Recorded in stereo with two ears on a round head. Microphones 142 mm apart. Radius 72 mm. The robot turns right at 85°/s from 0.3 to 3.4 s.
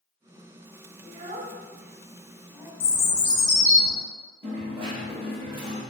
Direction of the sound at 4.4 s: 35° right (ahead or behind).